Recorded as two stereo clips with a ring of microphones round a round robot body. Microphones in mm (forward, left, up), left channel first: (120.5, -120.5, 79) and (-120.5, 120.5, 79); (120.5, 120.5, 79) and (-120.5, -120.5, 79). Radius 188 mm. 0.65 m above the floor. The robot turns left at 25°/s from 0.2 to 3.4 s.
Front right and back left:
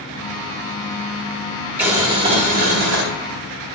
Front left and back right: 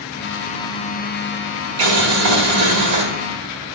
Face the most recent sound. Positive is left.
turn(degrees=180)